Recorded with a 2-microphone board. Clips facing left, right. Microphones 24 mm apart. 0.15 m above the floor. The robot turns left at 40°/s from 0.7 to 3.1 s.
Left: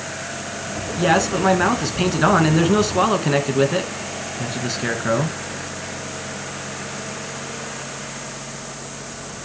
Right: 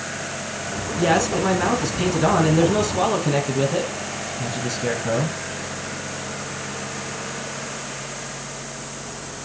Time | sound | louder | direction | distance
1.0 | a man speaking | left 2 dB | 165° left | 1.8 m